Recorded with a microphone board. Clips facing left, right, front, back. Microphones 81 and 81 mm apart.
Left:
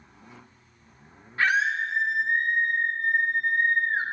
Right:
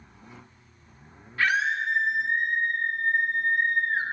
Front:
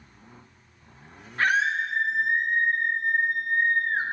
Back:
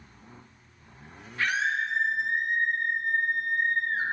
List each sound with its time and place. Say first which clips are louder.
1.4 s a scream: left 1 dB, front 4 dB; 35° left, 0.6 m